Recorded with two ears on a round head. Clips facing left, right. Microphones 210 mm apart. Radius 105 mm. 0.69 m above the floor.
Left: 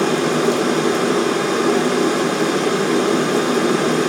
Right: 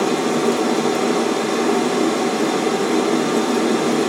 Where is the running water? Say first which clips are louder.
Left 1 dB; 20° left (ahead or behind), 0.9 m.